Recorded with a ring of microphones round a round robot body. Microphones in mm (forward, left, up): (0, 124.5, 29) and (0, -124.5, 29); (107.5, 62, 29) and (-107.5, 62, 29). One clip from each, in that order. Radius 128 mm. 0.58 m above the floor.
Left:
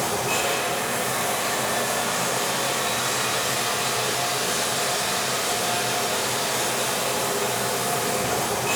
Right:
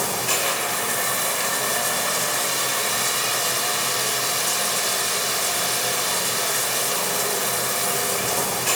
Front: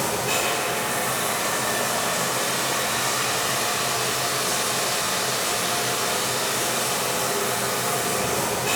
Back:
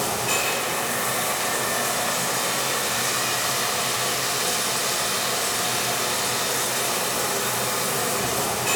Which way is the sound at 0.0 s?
100° right.